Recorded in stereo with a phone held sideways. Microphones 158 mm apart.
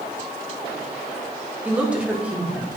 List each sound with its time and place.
1.6 s a woman speaking: 10° right (ahead or behind), 1.5 m